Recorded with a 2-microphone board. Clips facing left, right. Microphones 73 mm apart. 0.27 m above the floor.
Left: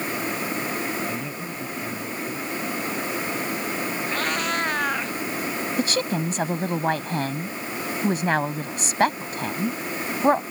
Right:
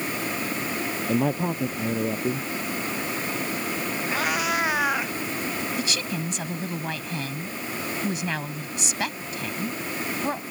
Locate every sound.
1.1 s a man speaking: 65° right (ahead or behind)
4.1 s a cat meowing: 10° right (ahead or behind)
5.8 s a woman speaking: 45° left (ahead or behind)